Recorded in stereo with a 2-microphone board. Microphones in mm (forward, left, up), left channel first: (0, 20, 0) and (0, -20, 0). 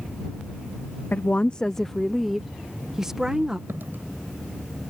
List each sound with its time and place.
1.1 s a woman speaking: 50° left (ahead or behind); by 3.6 s 20° right (ahead or behind)
3.7 s a dropped coin: 60° right (ahead or behind)